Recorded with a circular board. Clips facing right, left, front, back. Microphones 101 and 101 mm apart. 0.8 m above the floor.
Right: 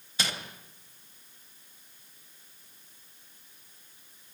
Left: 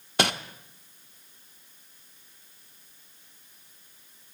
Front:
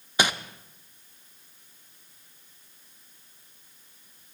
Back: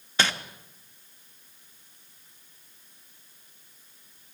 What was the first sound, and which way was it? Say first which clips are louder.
Crumpling: left 10 dB, front 1 dB; 75° left.